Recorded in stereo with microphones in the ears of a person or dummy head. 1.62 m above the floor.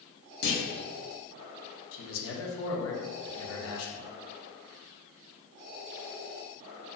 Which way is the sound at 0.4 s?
70° left (ahead or behind).